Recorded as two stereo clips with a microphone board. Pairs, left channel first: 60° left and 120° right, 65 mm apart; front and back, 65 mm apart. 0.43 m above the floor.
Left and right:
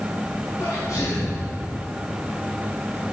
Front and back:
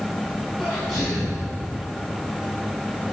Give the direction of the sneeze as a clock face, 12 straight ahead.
9 o'clock.